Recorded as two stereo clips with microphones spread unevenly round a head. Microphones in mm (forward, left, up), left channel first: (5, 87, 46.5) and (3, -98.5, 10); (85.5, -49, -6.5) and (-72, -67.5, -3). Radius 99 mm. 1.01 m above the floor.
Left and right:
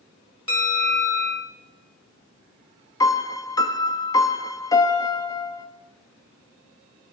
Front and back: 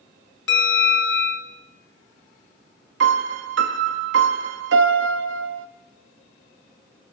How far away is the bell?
About 3.5 m.